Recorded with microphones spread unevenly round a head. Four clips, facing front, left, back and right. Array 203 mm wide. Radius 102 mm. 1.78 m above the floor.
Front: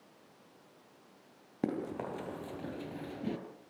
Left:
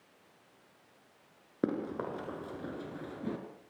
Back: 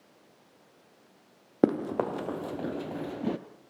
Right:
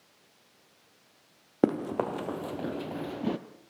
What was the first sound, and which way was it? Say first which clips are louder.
Running footsteps: right 7 dB, back 10 dB; 145° right.